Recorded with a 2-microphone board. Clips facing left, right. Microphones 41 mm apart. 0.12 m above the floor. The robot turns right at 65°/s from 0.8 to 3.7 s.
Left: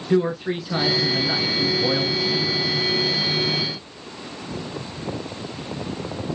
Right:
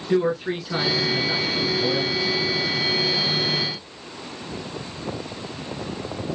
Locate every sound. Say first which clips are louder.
0.1 s a man speaking: left 1 dB; 5° right (ahead or behind), 1.2 m; by 2.6 s 30° left (ahead or behind), 1.2 m